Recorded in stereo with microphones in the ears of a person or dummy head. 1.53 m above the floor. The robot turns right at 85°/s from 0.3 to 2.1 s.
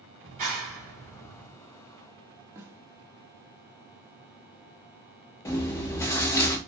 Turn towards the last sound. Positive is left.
turn(degrees=20)  # may be behind; listen again after turning